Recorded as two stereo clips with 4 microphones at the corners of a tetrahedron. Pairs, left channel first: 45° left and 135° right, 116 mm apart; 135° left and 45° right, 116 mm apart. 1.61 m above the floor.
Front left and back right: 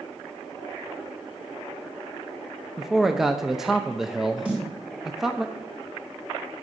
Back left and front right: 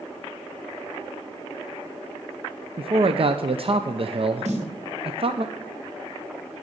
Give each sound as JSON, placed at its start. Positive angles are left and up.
{"t": 2.8, "sound": "a man speaking", "azimuth_deg": -50, "distance_m": 0.5}
{"t": 4.5, "sound": "a snare drum", "azimuth_deg": -55, "distance_m": 4.0}